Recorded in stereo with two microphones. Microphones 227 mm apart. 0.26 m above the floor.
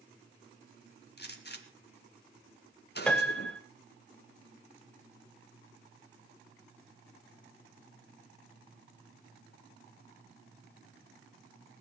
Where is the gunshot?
50° left (ahead or behind), 1.9 m.